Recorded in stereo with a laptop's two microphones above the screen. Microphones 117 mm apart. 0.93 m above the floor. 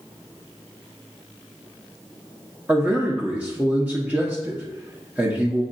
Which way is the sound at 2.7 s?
15° right (ahead or behind).